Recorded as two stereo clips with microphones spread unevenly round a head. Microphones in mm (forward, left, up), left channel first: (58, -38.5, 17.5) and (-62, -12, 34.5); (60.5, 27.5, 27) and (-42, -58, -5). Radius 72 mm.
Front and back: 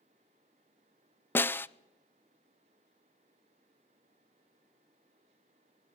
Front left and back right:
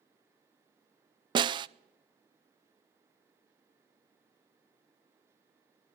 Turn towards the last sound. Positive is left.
turn(degrees=-85)